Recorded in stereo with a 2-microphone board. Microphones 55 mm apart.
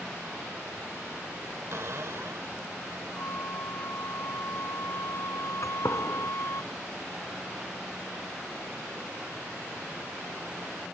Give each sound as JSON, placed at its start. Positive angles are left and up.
{"t": 1.7, "sound": "a cupboard door", "side_deg": -55}
{"t": 3.1, "sound": "a flute", "side_deg": 55}
{"t": 5.6, "sound": "a gunshot", "side_deg": 65}